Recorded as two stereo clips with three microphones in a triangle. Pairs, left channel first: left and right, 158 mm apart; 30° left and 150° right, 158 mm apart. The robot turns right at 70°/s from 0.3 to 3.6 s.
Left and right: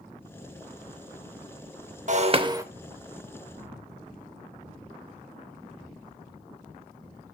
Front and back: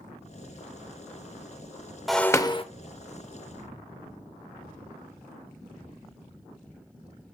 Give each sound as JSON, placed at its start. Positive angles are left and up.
{"t": 2.1, "sound": "breaking glass", "azimuth_deg": -60, "distance_m": 0.6}